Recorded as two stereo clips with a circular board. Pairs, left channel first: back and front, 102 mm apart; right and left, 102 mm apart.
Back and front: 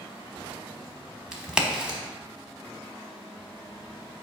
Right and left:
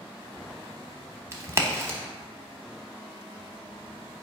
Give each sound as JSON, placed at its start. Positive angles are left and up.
{"t": 1.3, "sound": "a crack", "azimuth_deg": 75, "distance_m": 0.9}